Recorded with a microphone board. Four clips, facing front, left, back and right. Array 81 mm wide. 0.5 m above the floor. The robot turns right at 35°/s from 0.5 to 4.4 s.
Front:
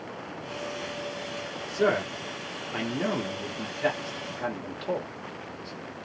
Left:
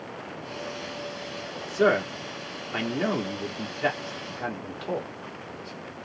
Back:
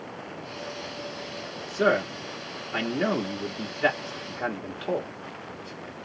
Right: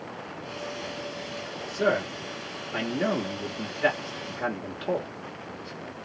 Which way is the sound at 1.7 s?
105° left.